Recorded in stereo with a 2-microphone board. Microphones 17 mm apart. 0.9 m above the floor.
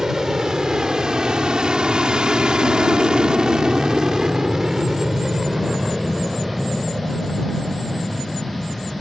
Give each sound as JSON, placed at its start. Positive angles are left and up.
{"t": 0.0, "sound": "an aircraft", "side_deg": -45}